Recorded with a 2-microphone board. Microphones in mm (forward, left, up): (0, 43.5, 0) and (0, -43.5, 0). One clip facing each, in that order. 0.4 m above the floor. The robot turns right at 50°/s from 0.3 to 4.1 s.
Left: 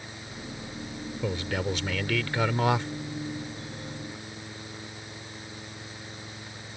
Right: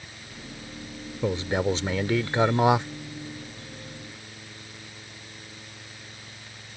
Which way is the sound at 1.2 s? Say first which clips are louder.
Right 5 dB; 20° right (ahead or behind).